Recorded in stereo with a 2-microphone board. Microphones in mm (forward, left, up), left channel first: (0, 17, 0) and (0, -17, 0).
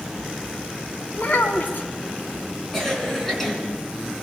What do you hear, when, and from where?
1.1 s a child speaking: 60° left (ahead or behind), 2 m
2.7 s a cough: 15° left (ahead or behind), 4 m